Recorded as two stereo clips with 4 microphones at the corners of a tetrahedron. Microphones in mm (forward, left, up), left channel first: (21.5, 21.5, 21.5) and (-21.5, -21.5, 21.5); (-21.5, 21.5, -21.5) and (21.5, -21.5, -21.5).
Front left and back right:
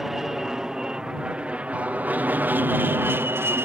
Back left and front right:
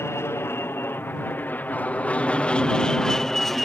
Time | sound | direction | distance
0.0 | an aircraft | 145° left | ?